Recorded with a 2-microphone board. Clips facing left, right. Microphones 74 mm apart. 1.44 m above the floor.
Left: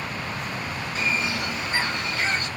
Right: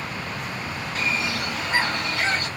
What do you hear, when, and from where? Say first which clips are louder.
0.9 s a bird: even; 70° right (ahead or behind), 2.5 m